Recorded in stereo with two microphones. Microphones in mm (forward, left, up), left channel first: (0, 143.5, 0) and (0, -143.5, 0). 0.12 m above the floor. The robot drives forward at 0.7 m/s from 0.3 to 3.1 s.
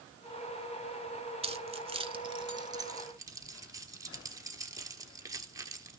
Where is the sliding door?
I don't hear a sliding door.